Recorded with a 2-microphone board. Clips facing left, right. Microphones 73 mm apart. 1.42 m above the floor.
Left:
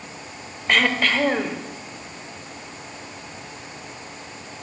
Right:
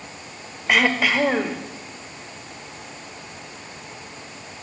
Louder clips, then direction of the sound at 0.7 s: Right 1 dB; 5° right (ahead or behind).